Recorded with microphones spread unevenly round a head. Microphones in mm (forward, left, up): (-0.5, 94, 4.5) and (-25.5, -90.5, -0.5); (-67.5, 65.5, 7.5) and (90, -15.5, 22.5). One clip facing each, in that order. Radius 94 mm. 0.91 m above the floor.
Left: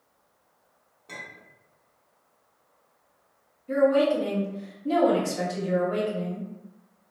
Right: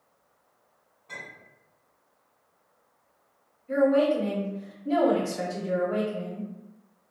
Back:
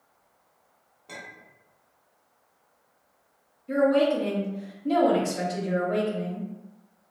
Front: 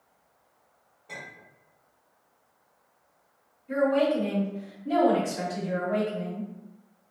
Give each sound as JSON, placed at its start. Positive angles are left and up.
{"t": 1.1, "sound": "a clink", "azimuth_deg": 115, "distance_m": 1.4}
{"t": 3.7, "sound": "a woman speaking", "azimuth_deg": 120, "distance_m": 1.2}